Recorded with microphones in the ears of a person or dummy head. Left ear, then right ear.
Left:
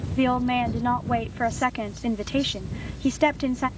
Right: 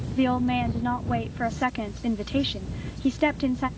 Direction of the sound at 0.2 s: 20° left (ahead or behind).